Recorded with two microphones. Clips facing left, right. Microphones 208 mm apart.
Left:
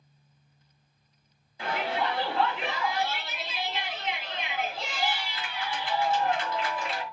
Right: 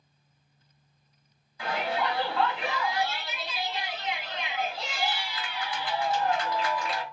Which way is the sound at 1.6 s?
25° left (ahead or behind).